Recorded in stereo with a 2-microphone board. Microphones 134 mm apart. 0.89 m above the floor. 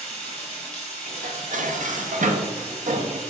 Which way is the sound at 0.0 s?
5° left (ahead or behind).